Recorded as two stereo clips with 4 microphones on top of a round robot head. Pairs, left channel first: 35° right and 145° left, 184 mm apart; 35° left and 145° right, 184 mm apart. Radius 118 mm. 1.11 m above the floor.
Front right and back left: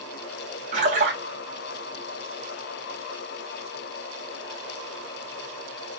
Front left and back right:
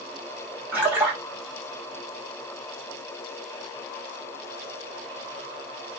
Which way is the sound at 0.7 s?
145° left.